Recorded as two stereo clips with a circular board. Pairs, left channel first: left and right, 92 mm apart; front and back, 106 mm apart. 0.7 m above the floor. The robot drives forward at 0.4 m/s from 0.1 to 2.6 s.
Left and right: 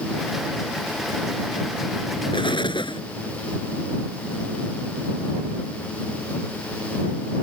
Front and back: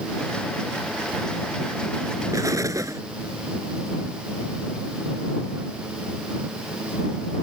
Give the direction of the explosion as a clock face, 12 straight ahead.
8 o'clock.